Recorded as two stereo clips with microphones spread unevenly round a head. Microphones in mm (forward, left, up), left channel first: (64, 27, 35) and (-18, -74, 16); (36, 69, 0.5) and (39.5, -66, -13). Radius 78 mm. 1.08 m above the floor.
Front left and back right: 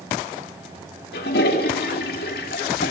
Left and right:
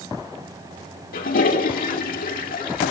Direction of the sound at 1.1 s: 70° left.